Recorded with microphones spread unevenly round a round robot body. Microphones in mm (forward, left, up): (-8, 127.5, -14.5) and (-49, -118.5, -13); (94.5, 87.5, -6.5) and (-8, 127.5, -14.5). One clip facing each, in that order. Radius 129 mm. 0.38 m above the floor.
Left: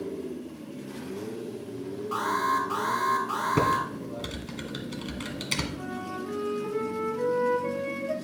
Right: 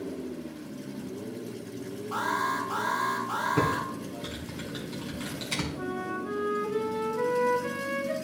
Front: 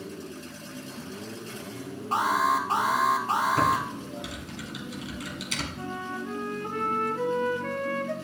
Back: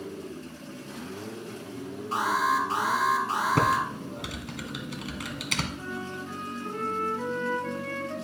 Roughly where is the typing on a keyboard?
Behind left.